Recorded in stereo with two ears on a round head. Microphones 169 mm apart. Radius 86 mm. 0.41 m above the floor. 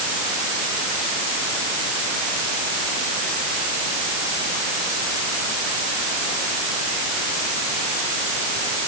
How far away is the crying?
No crying in this recording.